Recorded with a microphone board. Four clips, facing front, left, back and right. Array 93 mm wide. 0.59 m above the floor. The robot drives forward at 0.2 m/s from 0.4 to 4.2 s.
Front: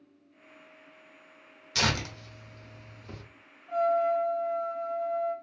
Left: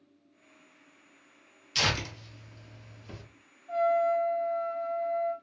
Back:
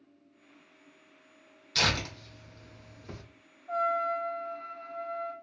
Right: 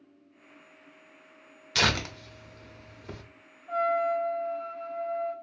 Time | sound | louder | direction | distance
1.8 | tearing paper | right 4 dB, front 1 dB | 75° right | 0.9 m
3.7 | a trumpet | left 1 dB, front 4 dB | 120° right | 0.8 m